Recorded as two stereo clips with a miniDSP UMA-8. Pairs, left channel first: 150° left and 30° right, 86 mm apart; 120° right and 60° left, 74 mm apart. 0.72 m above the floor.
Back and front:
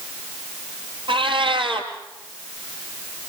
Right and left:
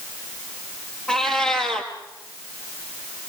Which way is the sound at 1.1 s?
40° right.